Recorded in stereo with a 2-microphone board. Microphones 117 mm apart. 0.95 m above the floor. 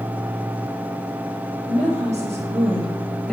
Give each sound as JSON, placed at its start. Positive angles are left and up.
{"t": 1.7, "sound": "a woman speaking", "side_deg": -70, "distance_m": 1.8}